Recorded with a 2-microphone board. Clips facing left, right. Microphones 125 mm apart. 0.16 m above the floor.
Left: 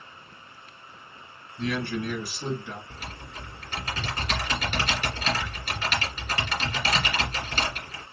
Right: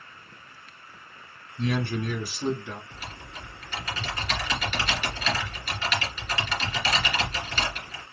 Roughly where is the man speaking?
Right.